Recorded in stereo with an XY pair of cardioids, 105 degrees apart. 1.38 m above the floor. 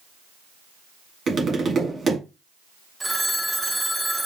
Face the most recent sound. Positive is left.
turn(degrees=-15)